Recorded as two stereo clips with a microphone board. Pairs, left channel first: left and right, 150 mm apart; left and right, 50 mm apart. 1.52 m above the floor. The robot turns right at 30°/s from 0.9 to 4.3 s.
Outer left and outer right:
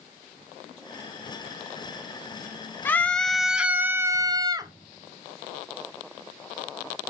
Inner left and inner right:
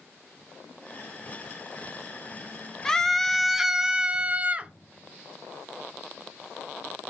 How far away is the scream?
About 0.5 m.